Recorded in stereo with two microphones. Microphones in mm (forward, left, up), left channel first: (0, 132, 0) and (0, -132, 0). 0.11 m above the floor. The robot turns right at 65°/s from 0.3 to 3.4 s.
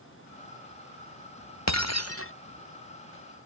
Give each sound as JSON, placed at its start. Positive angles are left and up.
{"t": 1.7, "sound": "breaking glass", "azimuth_deg": 90}